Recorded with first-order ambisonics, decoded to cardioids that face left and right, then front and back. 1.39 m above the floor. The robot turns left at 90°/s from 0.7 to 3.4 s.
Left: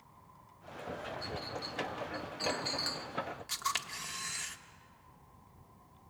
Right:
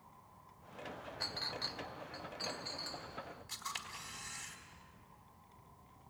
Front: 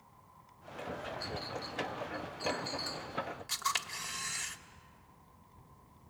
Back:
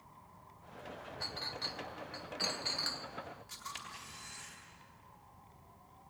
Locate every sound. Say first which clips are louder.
1.2 s a clink: even, even; 80° right, 0.8 m; by 3.1 s 110° left, 0.8 m
3.5 s a camera shutter: left 8 dB, front 14 dB; 50° left, 1.6 m